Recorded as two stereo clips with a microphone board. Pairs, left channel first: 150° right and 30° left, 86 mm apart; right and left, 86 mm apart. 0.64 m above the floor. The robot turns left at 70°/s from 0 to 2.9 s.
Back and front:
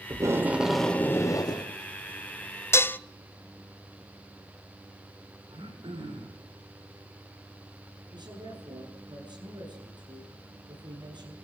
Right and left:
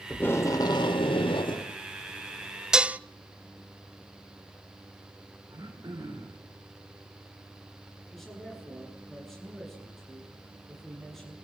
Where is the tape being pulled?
15° right, 2 m; by 1.7 s 125° right, 2 m.